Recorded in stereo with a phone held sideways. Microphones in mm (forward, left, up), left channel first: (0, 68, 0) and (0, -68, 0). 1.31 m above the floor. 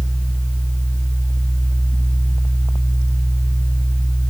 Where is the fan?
5° left (ahead or behind), 4.5 m.